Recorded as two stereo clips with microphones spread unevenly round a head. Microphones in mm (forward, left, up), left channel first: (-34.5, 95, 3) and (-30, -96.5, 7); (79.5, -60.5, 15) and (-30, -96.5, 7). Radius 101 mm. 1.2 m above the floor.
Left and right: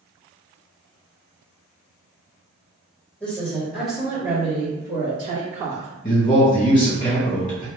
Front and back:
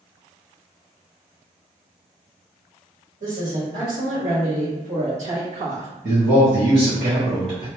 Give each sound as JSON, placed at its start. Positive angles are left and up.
{"t": 3.2, "sound": "a woman speaking", "azimuth_deg": 175, "distance_m": 1.9}
{"t": 6.0, "sound": "a man speaking", "azimuth_deg": 155, "distance_m": 1.4}